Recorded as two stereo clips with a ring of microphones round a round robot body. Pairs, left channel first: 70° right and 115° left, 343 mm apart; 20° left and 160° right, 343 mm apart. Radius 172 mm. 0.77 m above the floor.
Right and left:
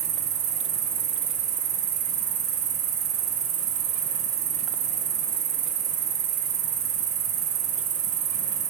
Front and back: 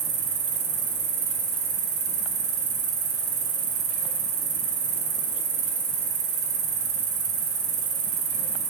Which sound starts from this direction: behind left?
An insect, at 0.0 s.